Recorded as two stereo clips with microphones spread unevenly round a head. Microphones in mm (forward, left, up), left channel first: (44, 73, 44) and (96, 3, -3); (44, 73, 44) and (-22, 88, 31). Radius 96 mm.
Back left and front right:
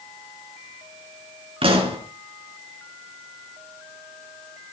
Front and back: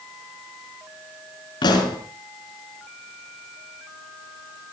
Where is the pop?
30° right, 4 m.